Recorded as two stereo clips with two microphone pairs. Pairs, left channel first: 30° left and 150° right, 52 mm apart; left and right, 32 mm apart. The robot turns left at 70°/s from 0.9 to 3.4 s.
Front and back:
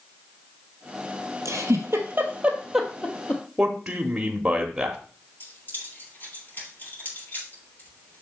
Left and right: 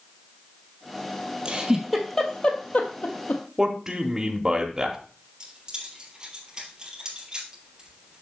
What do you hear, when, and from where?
1.4 s a giggle: 145° right, 1.2 m; by 3.4 s 80° left, 1.2 m
3.6 s a man speaking: 105° right, 0.9 m
5.4 s keys jangling: 20° right, 4.5 m